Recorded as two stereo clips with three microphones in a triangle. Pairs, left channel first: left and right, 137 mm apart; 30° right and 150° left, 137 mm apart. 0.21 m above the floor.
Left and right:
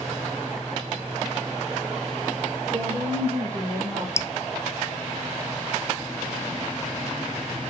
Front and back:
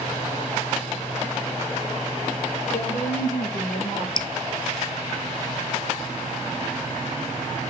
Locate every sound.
2.7 s a woman speaking: 45° right, 5.5 m; by 4.1 s 40° right, 5.5 m
4.2 s dripping: 20° left, 0.6 m